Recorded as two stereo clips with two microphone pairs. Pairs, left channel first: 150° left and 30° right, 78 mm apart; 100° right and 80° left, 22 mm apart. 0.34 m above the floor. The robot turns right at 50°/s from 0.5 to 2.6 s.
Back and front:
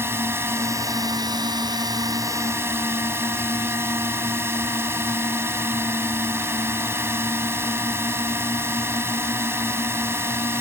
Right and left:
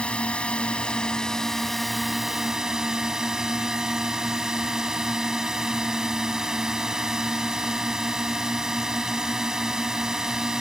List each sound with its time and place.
0.0 s a drone: 80° right; by 10.6 s 25° left